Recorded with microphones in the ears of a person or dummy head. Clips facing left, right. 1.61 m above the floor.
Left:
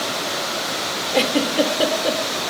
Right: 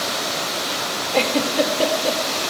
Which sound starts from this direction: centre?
A giggle, at 1.1 s.